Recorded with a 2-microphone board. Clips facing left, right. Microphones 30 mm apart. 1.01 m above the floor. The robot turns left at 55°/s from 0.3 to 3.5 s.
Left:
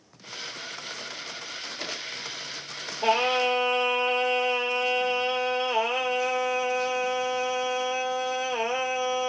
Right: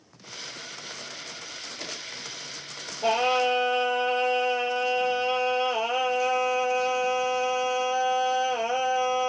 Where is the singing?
55° left (ahead or behind), 2 m; by 9.3 s 85° left, 2 m.